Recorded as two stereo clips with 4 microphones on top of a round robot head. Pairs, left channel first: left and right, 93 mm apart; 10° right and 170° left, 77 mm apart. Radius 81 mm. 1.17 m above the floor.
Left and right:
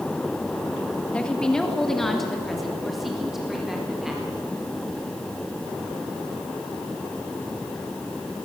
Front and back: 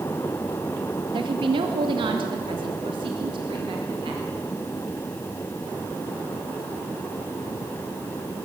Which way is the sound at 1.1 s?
170° left.